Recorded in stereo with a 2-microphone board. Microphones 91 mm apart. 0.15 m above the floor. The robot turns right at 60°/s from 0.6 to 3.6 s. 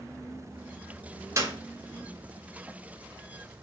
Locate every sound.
1.4 s a clap: 35° right (ahead or behind), 1.7 m; by 1.6 s 30° right (ahead or behind), 1.7 m